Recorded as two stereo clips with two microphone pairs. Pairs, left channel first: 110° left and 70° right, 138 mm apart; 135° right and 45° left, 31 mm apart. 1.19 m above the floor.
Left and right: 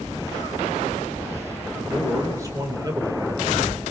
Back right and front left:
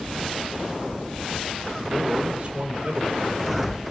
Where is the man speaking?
Straight ahead, 5 m; by 3.8 s 15° right, 4.5 m.